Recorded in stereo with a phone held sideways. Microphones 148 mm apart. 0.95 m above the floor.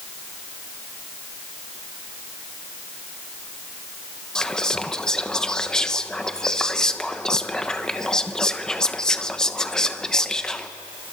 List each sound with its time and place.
4.3 s whispering: 5° left (ahead or behind), 0.9 m